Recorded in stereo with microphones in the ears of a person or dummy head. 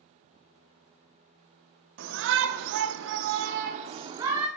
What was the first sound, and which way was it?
A shout, 60° right (ahead or behind).